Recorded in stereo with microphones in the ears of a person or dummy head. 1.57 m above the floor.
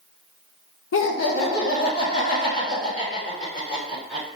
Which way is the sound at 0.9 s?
70° left (ahead or behind).